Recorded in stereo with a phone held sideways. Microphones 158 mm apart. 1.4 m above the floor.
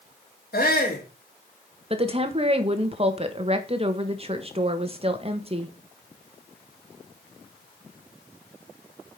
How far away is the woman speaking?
About 1.6 m.